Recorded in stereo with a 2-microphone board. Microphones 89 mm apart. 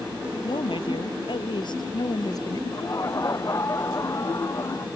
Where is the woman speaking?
70° left (ahead or behind); by 2.6 s 45° left (ahead or behind).